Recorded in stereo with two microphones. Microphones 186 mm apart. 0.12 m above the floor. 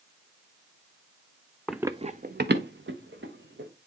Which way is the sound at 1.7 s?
5° left (ahead or behind).